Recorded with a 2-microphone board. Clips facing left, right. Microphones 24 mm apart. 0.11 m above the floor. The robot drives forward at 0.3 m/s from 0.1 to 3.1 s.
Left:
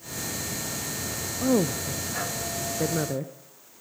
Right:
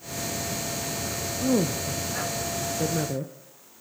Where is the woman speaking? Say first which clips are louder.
Left 1 dB; 15° left (ahead or behind), 1.1 m.